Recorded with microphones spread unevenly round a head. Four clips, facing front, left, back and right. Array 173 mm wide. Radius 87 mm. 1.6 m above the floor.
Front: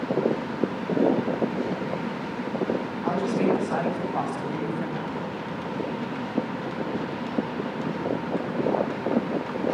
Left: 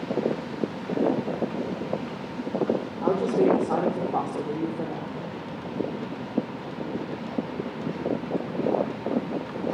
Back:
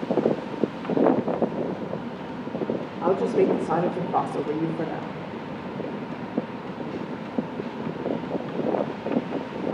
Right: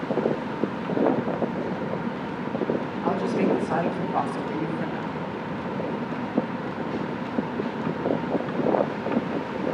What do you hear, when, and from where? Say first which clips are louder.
3.0 s a woman speaking: left 3 dB, back 4 dB; 155° left, 6.5 m; by 5.2 s 165° left, 5 m